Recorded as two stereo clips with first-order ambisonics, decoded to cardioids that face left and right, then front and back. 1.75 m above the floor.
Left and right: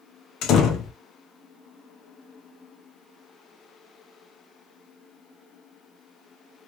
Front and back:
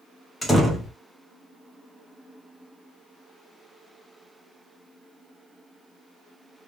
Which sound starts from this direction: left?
A door slam, at 0.4 s.